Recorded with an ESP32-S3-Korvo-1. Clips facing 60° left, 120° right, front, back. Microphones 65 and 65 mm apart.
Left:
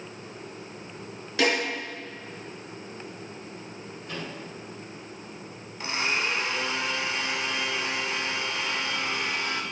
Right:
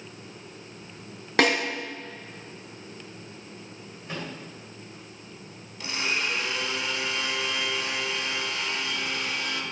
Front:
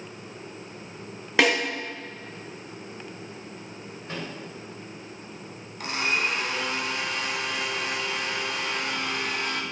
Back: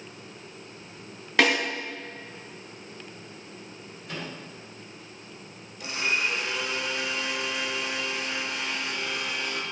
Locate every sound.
1.4 s a snare drum: 80° right, 2.0 m
4.1 s a microwave: 55° right, 3 m
5.8 s a blender: 10° left, 0.9 m